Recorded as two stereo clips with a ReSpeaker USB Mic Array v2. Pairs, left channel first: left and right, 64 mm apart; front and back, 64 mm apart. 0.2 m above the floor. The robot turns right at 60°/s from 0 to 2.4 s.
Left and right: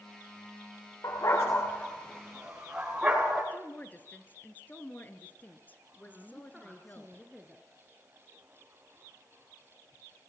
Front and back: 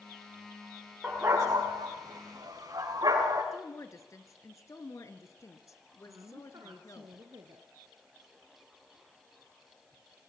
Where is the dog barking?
115° left, 7.5 m; by 3.4 s 165° right, 7.5 m.